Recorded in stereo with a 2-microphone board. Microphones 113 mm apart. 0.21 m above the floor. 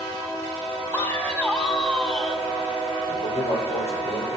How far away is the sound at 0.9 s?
About 1.6 m.